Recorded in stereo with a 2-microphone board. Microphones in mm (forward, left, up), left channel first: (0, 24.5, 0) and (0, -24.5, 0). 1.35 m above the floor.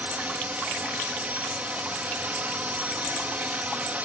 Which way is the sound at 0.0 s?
30° right (ahead or behind).